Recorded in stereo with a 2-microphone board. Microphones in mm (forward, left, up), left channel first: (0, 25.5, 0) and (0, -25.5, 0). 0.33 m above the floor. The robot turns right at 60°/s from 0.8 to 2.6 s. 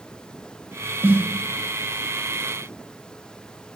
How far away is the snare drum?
About 0.6 m.